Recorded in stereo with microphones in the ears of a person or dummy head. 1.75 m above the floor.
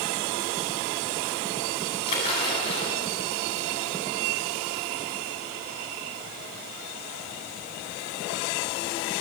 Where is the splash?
30° left (ahead or behind), 8.5 m.